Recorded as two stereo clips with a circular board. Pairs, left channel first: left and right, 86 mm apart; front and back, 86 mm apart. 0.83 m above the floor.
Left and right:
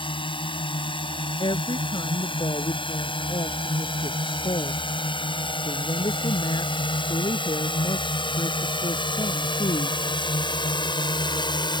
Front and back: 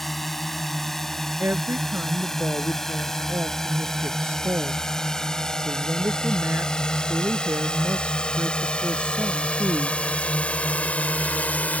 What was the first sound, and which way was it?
A drone, 85° left.